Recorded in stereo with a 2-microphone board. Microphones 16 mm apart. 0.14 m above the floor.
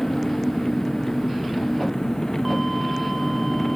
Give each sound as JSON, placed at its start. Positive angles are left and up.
{"t": 0.0, "sound": "an engine running", "side_deg": 35}